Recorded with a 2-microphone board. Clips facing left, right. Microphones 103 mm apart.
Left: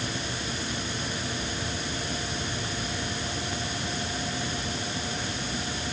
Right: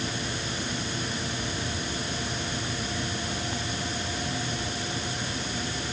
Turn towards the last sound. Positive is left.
No sound to turn to.